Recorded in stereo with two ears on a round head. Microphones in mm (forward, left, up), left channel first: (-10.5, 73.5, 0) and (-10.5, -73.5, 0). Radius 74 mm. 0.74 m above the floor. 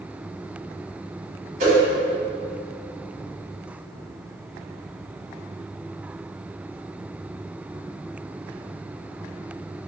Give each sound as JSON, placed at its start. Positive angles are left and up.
{"t": 1.6, "sound": "a whoosh", "side_deg": -50, "distance_m": 0.9}